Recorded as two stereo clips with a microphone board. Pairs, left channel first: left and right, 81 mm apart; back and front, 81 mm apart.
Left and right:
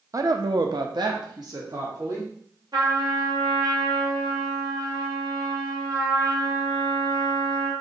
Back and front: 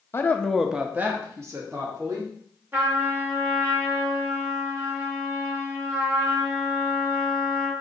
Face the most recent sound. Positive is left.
turn(degrees=-60)